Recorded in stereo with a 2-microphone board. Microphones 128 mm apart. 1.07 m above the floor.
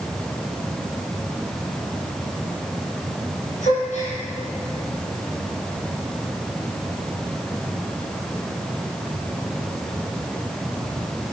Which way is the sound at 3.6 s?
70° left (ahead or behind).